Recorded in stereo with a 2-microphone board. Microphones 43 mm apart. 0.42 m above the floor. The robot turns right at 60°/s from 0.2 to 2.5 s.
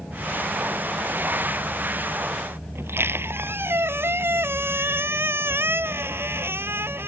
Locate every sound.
2.8 s a squeak: 65° right (ahead or behind)